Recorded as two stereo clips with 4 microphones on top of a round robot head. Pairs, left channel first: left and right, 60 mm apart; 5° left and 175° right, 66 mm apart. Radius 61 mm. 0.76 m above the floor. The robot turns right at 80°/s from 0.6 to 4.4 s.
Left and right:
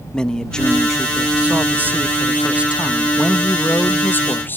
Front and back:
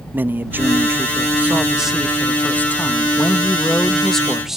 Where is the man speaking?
160° left; by 4.6 s 105° left.